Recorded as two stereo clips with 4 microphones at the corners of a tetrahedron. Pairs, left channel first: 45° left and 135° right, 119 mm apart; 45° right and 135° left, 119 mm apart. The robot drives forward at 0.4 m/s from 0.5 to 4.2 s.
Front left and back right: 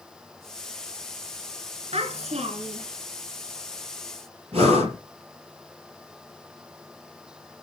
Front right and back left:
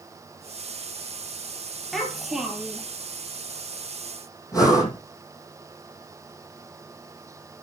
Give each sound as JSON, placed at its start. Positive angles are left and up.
{"t": 1.9, "sound": "a child speaking", "azimuth_deg": -135, "distance_m": 2.0}
{"t": 4.5, "sound": "breathing", "azimuth_deg": -105, "distance_m": 4.5}